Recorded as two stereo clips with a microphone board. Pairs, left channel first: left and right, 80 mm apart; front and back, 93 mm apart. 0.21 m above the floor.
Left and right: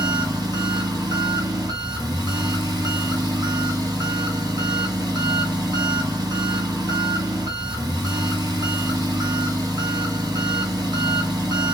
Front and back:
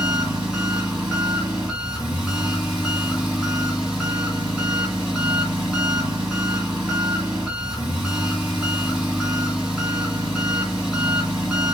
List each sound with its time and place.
0.0 s an engine running: 105° right, 2 m